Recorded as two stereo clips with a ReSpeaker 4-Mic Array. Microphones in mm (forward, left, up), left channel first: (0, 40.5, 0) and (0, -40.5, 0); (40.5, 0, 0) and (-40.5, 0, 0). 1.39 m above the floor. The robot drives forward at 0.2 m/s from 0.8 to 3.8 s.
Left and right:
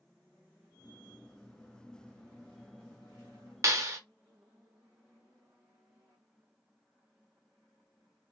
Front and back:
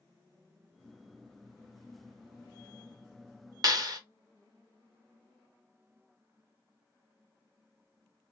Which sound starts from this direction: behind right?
A clap, at 3.6 s.